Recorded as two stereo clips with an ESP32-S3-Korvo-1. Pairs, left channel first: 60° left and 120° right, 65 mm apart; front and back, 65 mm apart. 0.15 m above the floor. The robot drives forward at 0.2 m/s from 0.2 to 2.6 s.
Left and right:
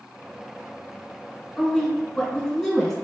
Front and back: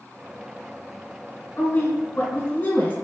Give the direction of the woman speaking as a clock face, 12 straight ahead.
1 o'clock.